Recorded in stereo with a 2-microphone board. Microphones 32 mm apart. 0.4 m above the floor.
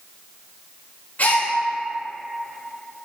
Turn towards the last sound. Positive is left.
turn(degrees=55)  # may be behind; listen again after turning